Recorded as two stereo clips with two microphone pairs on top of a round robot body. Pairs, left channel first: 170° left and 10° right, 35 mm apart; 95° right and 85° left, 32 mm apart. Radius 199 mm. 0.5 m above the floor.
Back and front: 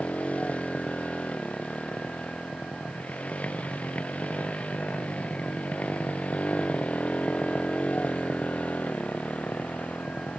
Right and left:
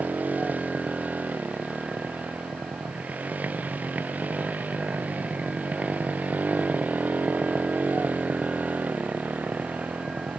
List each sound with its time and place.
0.0 s a motorcycle: 120° left